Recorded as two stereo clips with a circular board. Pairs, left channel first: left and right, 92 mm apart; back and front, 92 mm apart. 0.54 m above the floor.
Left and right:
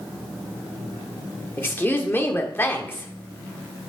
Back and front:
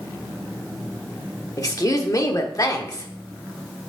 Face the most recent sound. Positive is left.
turn(degrees=150)